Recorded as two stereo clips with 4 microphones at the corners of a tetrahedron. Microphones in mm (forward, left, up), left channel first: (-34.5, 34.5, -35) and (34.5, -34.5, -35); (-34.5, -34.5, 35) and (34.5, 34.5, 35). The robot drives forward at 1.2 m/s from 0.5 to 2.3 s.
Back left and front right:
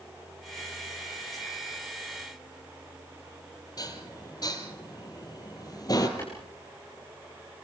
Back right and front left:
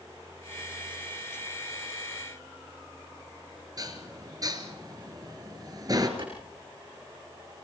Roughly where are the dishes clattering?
Left.